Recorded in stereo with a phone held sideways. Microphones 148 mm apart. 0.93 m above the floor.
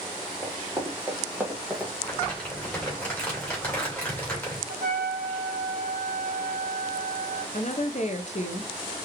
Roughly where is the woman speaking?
Left.